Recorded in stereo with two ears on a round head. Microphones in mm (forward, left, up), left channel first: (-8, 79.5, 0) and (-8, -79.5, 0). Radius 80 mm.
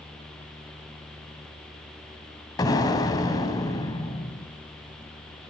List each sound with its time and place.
2.6 s an explosion: 20° left (ahead or behind), 1.6 m